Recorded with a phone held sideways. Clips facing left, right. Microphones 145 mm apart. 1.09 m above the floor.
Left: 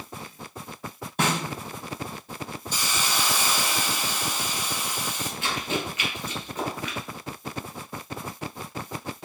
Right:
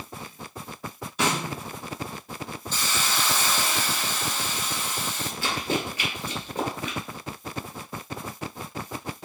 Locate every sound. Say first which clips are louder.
1.2 s a snare drum: even; 55° left (ahead or behind), 1.1 m
2.7 s a hiss: even; 10° left (ahead or behind), 0.5 m
5.4 s running footsteps: right 2 dB; 35° right (ahead or behind), 1.5 m; by 7.0 s 30° right (ahead or behind), 1.1 m